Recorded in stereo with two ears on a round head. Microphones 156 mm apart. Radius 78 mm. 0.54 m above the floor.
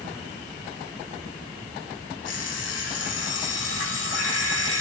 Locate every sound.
2.2 s an alarm clock: 80° left, 9 m